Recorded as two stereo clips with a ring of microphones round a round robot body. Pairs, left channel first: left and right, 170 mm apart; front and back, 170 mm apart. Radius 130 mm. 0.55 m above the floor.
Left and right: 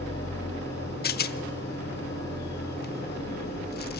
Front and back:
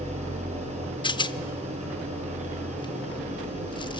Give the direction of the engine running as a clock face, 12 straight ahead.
8 o'clock.